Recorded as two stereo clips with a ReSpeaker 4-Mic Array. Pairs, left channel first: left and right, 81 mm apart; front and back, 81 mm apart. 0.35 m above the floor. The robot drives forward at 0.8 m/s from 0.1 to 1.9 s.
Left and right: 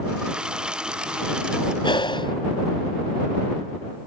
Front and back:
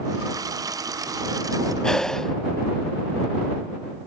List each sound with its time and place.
1.8 s breathing: 80° left; by 2.4 s 85° left